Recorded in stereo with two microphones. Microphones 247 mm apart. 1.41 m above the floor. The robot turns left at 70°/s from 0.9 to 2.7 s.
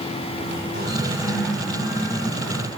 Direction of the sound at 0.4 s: 140° right.